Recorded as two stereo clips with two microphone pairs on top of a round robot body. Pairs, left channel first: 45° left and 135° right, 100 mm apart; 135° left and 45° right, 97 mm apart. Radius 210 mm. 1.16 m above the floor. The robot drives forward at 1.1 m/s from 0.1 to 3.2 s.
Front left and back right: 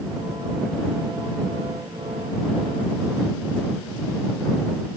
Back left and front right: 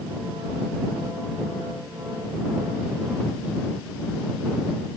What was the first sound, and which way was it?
Only background noise.